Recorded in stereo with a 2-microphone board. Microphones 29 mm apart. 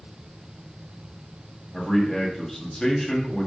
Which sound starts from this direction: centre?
A man speaking, at 1.7 s.